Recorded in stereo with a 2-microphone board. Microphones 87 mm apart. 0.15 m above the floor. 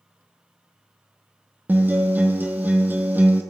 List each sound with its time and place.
1.7 s a guitar: 20° right (ahead or behind), 1.0 m